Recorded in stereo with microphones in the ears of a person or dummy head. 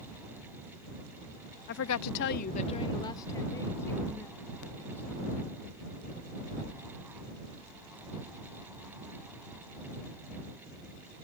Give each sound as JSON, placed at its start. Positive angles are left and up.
{"t": 1.7, "sound": "a woman speaking", "side_deg": 55}